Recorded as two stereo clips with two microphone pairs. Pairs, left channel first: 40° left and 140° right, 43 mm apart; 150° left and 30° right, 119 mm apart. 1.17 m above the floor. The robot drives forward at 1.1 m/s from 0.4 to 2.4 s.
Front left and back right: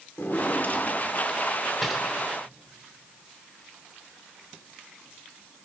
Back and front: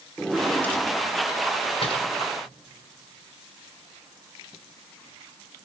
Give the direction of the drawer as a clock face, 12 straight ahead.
10 o'clock.